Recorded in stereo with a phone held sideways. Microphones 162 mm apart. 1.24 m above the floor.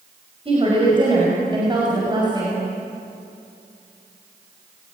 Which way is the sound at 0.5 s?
35° right (ahead or behind).